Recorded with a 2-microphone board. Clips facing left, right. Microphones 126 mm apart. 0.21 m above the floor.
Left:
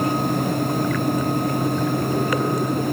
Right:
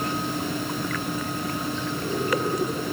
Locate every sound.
Only background noise.